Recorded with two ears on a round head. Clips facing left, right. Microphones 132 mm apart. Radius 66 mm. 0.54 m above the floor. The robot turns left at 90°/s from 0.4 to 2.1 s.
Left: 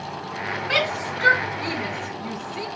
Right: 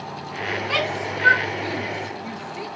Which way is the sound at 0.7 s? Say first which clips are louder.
Left 2 dB; 5° right (ahead or behind).